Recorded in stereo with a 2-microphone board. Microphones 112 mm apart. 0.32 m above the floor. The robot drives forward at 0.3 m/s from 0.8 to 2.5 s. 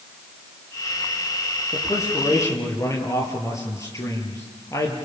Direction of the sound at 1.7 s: 25° left (ahead or behind).